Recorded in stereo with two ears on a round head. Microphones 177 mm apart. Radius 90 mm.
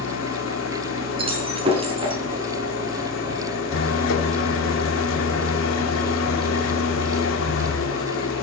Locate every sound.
0.0 s an engine running: 75° left (ahead or behind), 3 m
1.2 s breaking glass: 30° right (ahead or behind), 5.5 m